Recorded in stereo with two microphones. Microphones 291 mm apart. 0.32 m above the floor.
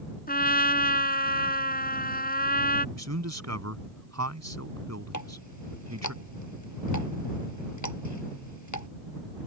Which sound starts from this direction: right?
A man speaking, at 3.0 s.